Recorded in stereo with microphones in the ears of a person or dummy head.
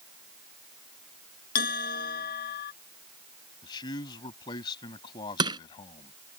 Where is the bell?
50° left (ahead or behind).